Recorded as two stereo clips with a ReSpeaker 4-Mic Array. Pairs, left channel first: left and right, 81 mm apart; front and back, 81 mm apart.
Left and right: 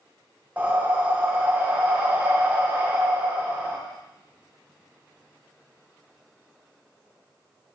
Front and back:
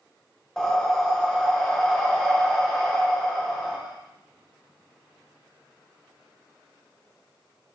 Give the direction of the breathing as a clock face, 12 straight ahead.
2 o'clock.